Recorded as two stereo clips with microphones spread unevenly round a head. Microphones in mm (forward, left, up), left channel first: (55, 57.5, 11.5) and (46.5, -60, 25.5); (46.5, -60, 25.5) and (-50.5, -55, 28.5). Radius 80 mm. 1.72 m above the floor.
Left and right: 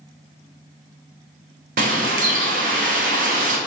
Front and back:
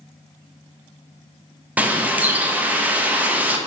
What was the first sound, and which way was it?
A bird, 110° right.